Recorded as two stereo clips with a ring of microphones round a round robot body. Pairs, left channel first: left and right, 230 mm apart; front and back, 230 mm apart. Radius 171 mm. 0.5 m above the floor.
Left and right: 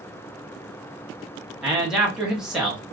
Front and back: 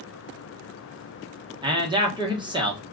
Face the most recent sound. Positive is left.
turn(degrees=-170)